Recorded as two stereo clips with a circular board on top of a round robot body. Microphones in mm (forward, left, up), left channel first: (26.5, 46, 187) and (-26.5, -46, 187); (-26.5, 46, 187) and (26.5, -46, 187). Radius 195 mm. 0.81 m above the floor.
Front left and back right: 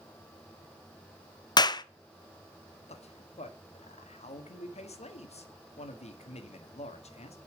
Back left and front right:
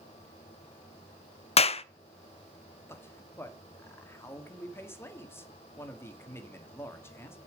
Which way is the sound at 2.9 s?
50° left.